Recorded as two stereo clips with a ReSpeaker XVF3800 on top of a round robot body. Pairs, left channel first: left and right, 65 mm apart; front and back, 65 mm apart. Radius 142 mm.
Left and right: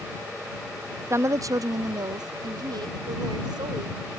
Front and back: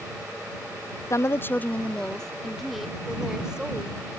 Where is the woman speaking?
40° right; by 4.0 s 105° right.